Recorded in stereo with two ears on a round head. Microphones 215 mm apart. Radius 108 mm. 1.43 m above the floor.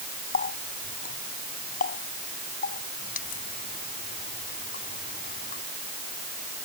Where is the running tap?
35° left (ahead or behind).